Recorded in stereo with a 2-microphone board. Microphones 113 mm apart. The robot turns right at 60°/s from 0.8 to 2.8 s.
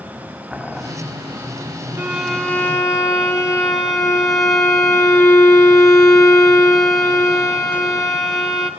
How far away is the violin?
About 2.5 m.